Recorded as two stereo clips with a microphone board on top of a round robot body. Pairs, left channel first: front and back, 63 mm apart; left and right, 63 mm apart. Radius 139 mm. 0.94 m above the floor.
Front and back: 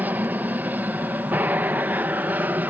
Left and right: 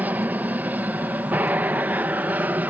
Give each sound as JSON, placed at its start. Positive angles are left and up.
{"t": 0.0, "sound": "an aircraft", "azimuth_deg": -135}